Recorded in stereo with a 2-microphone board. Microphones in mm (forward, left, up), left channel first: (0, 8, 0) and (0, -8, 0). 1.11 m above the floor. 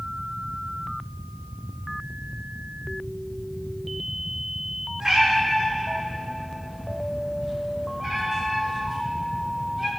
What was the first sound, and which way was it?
A cat meowing, 50° right (ahead or behind).